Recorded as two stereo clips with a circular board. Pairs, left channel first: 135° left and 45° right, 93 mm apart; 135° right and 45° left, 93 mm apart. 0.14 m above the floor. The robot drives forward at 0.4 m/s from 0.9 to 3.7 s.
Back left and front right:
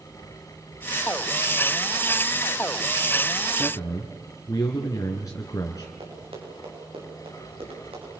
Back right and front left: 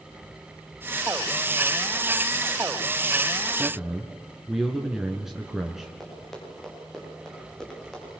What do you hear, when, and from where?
3.5 s a man speaking: 125° left, 1.9 m
6.0 s running footsteps: 50° right, 8 m; by 8.2 s 55° right, 10 m